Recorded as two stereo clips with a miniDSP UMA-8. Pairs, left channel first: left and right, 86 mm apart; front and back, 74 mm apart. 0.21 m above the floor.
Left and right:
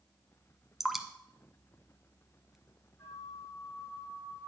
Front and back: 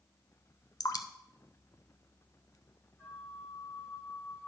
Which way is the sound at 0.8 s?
5° right.